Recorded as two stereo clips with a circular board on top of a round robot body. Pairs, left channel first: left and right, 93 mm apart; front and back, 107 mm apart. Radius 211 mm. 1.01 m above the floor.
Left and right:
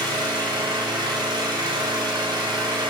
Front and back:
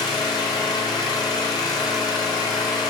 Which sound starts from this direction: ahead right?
An engine running, at 0.0 s.